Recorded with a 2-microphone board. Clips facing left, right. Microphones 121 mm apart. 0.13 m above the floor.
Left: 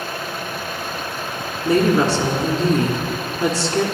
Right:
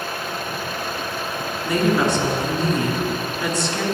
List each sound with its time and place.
1.6 s a woman speaking: 30° left (ahead or behind), 1.5 m